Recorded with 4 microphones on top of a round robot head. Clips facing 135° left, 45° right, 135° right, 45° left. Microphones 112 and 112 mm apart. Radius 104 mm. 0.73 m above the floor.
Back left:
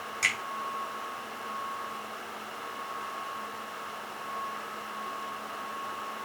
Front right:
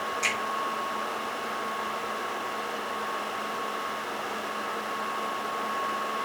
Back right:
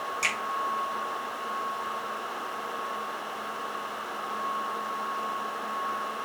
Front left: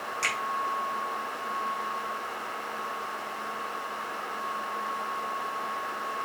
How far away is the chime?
No chime in this recording.